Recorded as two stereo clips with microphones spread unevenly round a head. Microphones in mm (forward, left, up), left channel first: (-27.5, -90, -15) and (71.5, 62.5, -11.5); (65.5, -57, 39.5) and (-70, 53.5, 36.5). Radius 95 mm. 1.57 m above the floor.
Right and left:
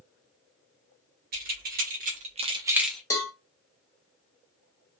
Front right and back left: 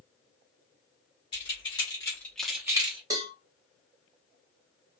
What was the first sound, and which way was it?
Keys jangling, 25° left.